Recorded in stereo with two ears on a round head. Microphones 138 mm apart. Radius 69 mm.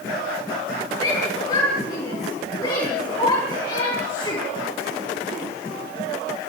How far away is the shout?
About 10 m.